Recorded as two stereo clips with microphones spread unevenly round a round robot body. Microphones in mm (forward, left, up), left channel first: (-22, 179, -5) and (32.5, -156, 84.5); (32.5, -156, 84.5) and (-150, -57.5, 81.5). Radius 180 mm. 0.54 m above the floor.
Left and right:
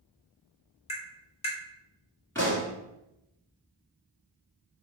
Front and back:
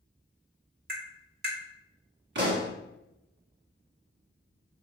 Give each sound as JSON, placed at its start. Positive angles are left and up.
{"t": 0.9, "sound": "tapping", "azimuth_deg": 145, "distance_m": 1.3}
{"t": 2.4, "sound": "a pop", "azimuth_deg": -175, "distance_m": 1.0}